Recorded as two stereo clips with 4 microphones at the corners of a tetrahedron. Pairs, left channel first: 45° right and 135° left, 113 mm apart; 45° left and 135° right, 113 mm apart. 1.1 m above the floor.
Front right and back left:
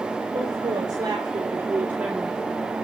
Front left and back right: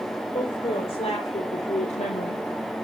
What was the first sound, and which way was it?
A woman speaking, 85° left.